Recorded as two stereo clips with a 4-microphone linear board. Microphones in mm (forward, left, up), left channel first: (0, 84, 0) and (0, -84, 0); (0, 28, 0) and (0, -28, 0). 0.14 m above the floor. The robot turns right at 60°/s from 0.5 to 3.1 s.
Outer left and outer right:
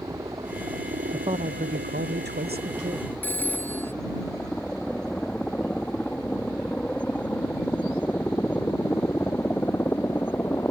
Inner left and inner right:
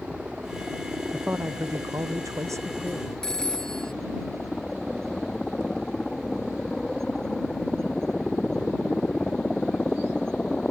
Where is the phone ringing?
10° left (ahead or behind).